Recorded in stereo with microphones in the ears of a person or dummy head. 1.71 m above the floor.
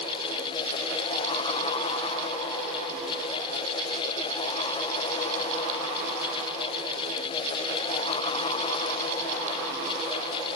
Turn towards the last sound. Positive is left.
No sound to turn to.